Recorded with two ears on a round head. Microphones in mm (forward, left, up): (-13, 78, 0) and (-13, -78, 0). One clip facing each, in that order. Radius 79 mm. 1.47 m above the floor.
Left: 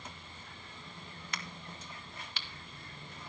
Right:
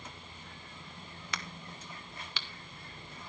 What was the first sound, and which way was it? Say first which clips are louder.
A crack: right 2 dB; 55° right (ahead or behind).